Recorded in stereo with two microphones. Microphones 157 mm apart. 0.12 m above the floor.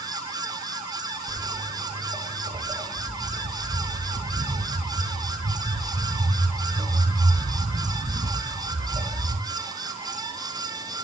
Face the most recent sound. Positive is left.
turn(degrees=-35)  # may be behind; listen again after turning